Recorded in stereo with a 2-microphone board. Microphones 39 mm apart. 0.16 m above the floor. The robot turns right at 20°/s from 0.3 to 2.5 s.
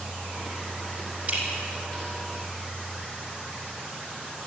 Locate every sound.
1.3 s dripping: 35° right (ahead or behind), 5 m; by 1.6 s 40° right (ahead or behind), 5 m